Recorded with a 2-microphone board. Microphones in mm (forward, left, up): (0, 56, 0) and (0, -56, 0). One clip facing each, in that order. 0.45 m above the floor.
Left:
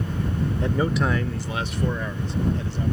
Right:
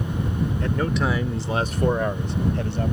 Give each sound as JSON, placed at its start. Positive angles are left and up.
{"t": 0.6, "sound": "a man speaking", "side_deg": 20}